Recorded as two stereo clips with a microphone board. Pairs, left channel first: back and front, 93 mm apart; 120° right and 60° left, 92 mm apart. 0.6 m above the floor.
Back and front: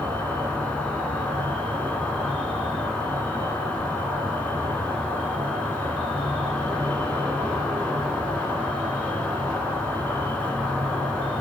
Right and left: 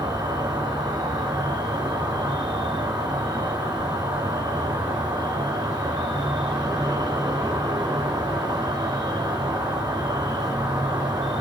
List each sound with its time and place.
0.0 s an insect: 105° left, 3 m